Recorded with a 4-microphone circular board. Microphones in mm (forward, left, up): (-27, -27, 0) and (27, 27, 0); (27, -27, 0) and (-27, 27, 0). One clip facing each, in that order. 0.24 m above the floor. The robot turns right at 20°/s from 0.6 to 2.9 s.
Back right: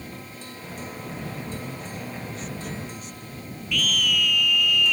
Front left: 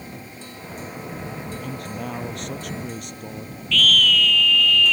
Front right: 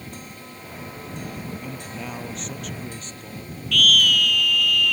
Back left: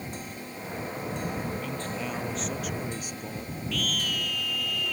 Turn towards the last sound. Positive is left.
turn(degrees=-60)